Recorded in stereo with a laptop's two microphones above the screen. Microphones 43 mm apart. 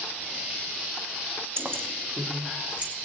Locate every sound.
1.6 s keys jangling: 65° right (ahead or behind), 0.9 m; by 2.9 s 30° right (ahead or behind), 3 m